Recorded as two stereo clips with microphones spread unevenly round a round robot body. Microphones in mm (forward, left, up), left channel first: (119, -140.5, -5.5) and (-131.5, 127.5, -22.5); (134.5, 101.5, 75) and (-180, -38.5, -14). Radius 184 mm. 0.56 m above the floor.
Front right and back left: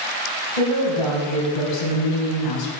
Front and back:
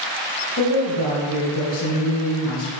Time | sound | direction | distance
0.6 | a woman speaking | 30° right | 4.5 m